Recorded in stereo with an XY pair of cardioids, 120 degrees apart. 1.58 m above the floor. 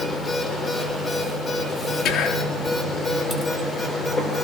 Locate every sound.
0.0 s a machine running: 20° left, 5 m
2.0 s whispering: 60° left, 3.5 m